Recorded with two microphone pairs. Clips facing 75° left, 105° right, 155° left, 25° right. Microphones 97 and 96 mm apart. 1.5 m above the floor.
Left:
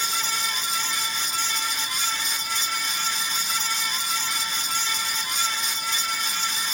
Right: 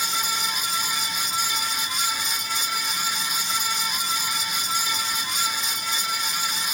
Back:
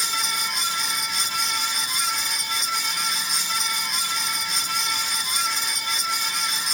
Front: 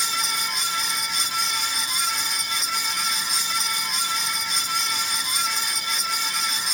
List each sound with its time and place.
Only background noise.